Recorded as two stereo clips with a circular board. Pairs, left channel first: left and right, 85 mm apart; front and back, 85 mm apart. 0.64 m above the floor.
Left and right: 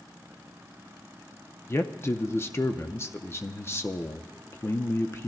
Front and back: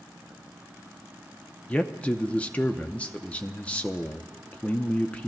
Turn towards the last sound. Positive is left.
turn(degrees=65)